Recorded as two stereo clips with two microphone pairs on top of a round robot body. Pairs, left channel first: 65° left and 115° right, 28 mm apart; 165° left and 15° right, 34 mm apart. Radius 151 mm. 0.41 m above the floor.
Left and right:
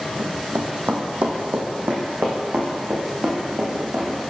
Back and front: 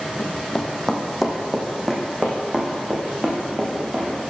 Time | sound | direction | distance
0.2 | running footsteps | 130° right | 1.1 m